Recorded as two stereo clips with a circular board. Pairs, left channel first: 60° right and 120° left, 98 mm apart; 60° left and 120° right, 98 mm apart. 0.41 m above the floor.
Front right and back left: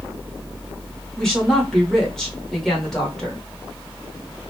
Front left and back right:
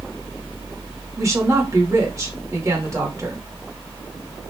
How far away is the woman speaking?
About 1.1 m.